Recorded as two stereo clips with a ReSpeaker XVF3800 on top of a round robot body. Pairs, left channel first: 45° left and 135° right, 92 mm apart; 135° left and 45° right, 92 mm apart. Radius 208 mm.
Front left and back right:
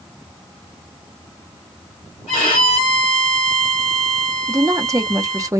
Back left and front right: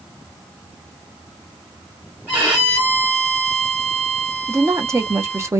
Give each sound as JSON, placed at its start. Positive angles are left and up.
{"t": 2.3, "sound": "a violin", "azimuth_deg": 35, "distance_m": 0.8}
{"t": 4.5, "sound": "a woman speaking", "azimuth_deg": -90, "distance_m": 1.0}